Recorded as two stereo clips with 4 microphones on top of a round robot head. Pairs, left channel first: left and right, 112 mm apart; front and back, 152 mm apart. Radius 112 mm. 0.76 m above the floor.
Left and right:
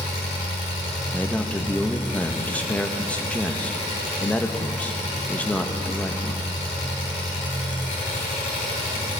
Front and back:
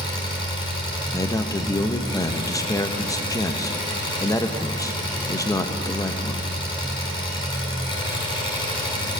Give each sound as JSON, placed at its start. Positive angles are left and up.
{"t": 0.0, "sound": "an engine running", "azimuth_deg": 55, "distance_m": 4.0}
{"t": 1.1, "sound": "a man speaking", "azimuth_deg": 30, "distance_m": 1.0}